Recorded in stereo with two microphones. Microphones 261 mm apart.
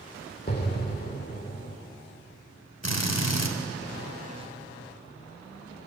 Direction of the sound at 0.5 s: 35° left (ahead or behind).